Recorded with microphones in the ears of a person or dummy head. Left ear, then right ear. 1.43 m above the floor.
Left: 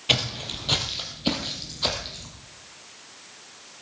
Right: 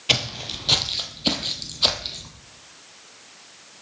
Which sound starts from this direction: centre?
Footsteps, at 0.1 s.